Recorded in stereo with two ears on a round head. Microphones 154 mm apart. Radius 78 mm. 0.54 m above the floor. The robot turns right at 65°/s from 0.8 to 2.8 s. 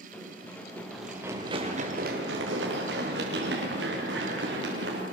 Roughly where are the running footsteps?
Centre.